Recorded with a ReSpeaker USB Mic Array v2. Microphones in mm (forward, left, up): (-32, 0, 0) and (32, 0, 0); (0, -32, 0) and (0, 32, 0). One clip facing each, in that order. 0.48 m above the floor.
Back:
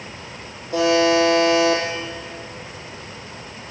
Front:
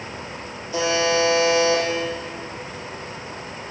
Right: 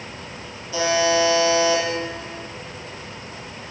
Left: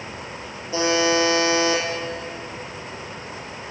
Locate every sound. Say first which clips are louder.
0.7 s a buzzer: back 4 dB, right 1 dB; 155° left, 6 m